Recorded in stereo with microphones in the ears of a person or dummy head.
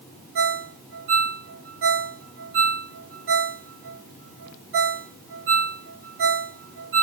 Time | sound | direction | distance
0.3 | a ringtone | 50° right (ahead or behind) | 0.6 m